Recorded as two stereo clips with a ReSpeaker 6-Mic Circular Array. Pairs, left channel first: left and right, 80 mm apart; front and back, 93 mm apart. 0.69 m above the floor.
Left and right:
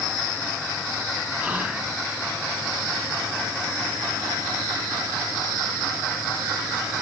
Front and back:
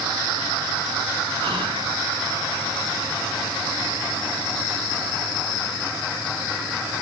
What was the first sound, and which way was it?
Whispering, 165° right.